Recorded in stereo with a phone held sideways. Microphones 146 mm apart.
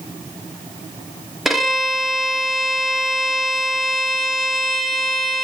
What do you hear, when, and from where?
1.4 s a violin: centre (ahead or behind), 1.2 m